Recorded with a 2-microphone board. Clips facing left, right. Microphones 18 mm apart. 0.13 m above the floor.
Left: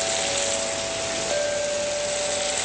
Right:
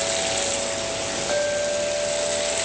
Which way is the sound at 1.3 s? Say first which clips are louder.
Right 3 dB; 30° right (ahead or behind).